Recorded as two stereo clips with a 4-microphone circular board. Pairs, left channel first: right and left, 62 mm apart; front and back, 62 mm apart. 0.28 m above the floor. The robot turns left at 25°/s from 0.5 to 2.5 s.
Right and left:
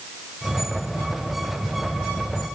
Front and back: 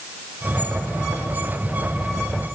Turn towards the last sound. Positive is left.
No sound to turn to.